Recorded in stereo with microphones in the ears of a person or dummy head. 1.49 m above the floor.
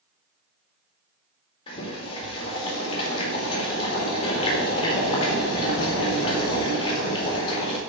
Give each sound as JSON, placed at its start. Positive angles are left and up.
{"t": 1.7, "sound": "boiling", "side_deg": 30, "distance_m": 3.5}